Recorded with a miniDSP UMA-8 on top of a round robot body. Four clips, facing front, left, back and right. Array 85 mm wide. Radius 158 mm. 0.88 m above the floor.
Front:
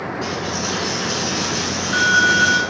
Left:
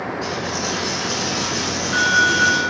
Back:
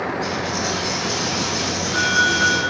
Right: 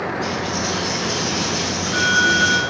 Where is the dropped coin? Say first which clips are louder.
Right 1 dB, back 1 dB; 25° left, 1.0 m.